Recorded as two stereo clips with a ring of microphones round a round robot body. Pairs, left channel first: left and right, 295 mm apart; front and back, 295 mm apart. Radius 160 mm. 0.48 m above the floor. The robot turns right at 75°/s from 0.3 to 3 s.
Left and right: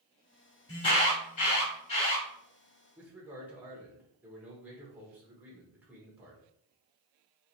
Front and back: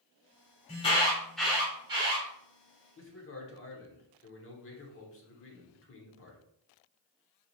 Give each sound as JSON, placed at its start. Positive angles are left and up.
{"t": 0.7, "sound": "an alarm", "azimuth_deg": 35, "distance_m": 1.7}
{"t": 3.0, "sound": "a man speaking", "azimuth_deg": -10, "distance_m": 1.1}